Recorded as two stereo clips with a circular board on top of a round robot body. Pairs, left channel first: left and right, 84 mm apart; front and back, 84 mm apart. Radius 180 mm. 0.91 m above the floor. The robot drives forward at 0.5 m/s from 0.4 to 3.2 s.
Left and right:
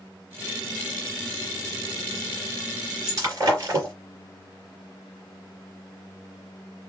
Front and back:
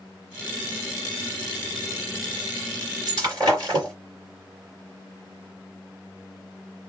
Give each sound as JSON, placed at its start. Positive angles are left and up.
{"t": 3.1, "sound": "breaking glass", "azimuth_deg": -140, "distance_m": 2.5}